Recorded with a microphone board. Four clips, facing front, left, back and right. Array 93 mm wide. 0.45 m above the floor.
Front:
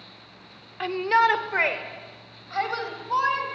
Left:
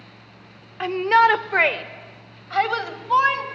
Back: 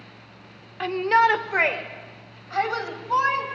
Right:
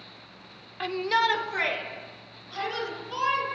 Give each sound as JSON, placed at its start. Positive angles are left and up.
{"t": 0.8, "sound": "a shout", "azimuth_deg": 100, "distance_m": 1.3}